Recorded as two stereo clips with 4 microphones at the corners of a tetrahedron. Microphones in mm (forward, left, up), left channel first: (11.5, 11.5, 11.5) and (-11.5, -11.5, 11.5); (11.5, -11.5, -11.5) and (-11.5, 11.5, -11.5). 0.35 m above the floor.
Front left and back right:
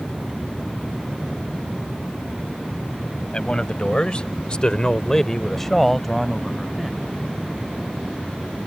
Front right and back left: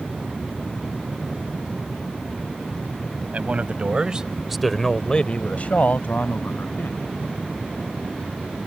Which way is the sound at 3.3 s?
100° left.